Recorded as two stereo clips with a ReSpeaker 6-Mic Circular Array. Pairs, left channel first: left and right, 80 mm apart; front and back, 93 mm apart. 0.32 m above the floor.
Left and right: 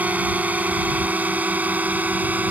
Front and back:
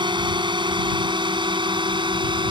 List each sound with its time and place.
0.0 s a drone: 160° right